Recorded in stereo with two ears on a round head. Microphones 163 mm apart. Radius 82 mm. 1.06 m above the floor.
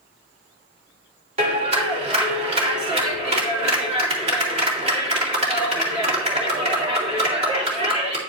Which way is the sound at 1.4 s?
40° right (ahead or behind).